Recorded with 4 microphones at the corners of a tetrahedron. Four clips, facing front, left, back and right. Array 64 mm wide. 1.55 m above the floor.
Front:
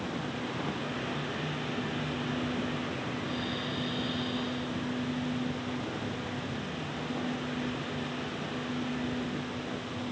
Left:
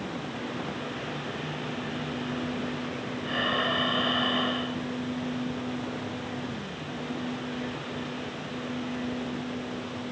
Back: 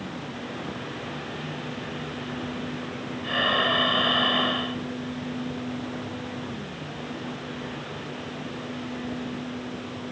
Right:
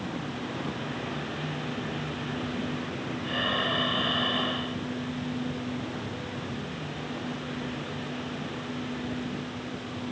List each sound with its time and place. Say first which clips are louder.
3.2 s breathing: left 1 dB, back 11 dB; 170° left